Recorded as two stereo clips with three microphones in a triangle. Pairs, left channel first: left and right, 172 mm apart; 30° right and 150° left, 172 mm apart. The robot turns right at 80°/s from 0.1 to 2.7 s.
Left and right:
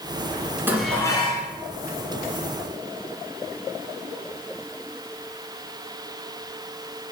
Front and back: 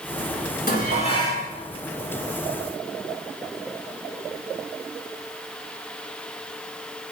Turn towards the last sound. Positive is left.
turn(degrees=150)